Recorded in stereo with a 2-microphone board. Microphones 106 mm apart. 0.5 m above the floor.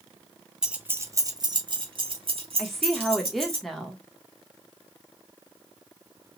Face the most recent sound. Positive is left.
turn(degrees=0)  # may be behind; listen again after turning